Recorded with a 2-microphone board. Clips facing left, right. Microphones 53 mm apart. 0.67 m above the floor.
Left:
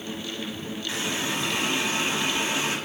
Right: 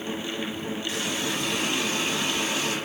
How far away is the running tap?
About 1.4 m.